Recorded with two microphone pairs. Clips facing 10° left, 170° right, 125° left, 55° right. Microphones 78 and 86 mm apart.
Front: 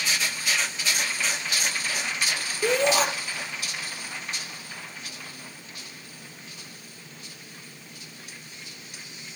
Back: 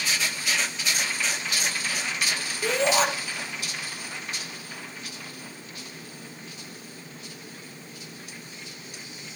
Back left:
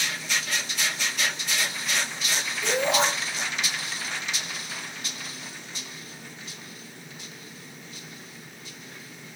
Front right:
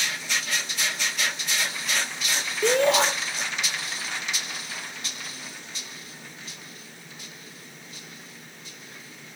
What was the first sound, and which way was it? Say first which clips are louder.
A shout: front 1 dB, front right 4 dB; 80° right.